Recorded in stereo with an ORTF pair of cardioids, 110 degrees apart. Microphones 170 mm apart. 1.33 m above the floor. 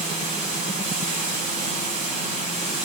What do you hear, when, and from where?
0.0 s running water: 50° right, 7.5 m